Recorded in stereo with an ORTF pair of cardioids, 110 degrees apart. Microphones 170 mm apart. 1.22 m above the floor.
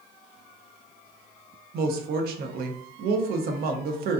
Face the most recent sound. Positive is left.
turn(degrees=-65)